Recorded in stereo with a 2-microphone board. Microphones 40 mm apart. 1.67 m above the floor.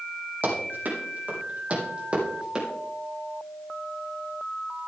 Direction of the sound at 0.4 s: 55° right (ahead or behind).